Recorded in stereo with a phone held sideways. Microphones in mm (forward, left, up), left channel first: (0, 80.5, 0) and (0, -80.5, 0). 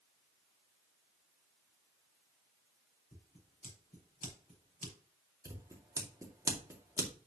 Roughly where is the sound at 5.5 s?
Centre.